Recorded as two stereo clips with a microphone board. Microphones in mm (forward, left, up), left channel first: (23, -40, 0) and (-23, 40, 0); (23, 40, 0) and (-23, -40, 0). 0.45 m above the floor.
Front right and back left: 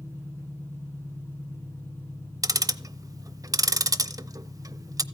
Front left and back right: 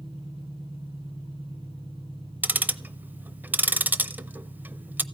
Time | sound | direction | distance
0.0 | an engine running | 120° right | 5 m
2.4 | ticking | 170° left | 0.7 m